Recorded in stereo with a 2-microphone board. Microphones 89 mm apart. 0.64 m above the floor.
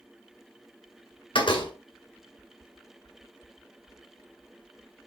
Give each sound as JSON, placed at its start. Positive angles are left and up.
{"t": 1.4, "sound": "a door slam", "side_deg": 70, "distance_m": 1.8}